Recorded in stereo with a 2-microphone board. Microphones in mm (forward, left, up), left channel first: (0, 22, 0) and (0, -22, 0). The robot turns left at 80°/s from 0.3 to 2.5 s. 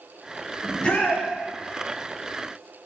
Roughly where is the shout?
Behind.